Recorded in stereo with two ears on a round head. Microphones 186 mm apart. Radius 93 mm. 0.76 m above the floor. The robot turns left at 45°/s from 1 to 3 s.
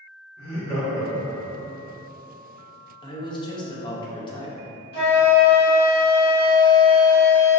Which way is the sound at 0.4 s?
150° left.